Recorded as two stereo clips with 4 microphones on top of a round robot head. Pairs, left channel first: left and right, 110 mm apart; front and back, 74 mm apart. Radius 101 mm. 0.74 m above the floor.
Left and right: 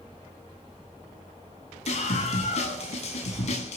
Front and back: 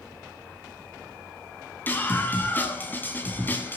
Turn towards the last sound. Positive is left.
turn(degrees=65)